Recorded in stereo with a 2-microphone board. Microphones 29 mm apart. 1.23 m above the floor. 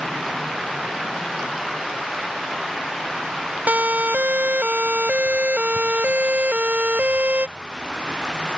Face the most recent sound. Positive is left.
turn(degrees=-60)  # may be behind; listen again after turning